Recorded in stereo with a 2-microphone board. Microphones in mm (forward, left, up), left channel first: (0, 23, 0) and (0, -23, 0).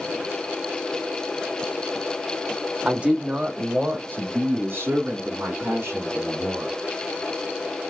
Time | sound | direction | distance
2.9 | a man speaking | 20° right (ahead or behind) | 0.8 m